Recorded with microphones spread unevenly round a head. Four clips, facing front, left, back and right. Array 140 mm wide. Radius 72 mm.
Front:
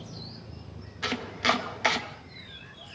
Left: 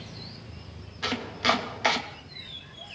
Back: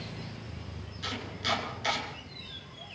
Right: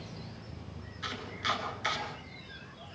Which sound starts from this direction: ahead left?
Chopping, at 1.0 s.